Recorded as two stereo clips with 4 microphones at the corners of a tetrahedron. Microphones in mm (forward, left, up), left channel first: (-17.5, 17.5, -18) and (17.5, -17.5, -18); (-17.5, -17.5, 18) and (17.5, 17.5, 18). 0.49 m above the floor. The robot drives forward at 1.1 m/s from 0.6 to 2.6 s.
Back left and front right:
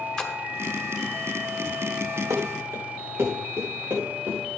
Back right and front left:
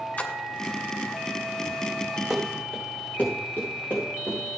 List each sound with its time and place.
0.2 s a splash: 155° right, 1.3 m
2.3 s running footsteps: 40° right, 2 m; by 4.4 s 90° right, 4.5 m